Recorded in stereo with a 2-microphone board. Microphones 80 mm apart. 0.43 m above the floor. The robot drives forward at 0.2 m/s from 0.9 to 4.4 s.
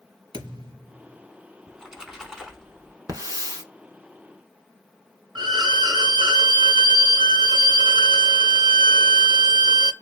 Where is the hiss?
50° right (ahead or behind), 0.9 m; by 3.6 s 55° right (ahead or behind), 0.8 m.